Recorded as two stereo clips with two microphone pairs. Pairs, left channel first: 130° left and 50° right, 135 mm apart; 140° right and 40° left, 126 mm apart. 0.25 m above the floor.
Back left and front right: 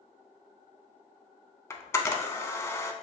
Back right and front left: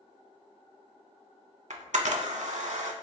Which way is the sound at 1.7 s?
60° left.